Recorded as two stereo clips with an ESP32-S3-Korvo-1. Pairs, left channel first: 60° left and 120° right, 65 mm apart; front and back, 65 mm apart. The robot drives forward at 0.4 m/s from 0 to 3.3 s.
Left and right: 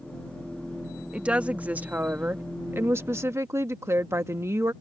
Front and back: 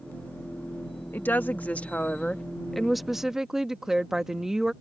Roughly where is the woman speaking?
Ahead right.